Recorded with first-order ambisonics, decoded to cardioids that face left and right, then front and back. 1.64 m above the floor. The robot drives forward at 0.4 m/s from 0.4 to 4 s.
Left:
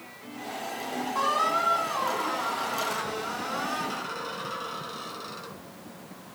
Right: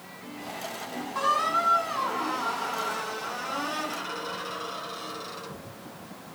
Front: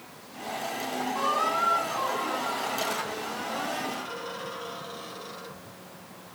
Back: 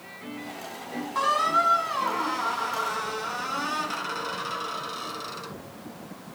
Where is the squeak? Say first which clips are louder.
Right 1 dB, back 4 dB; 165° left, 1.6 m; by 5.5 s 175° left, 2.5 m.